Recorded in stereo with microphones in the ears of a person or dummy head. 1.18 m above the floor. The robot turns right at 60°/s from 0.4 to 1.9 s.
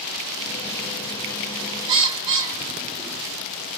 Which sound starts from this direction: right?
A bird, at 1.9 s.